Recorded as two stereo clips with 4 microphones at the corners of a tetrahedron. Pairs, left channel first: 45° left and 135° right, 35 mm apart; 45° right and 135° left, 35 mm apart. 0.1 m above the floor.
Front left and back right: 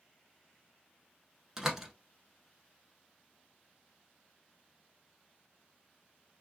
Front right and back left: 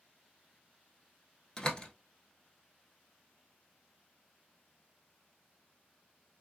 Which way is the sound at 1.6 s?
75° right.